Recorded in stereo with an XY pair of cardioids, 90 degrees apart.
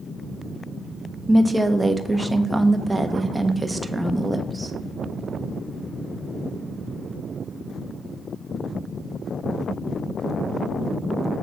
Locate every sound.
1.3 s a woman speaking: 10° right, 1.0 m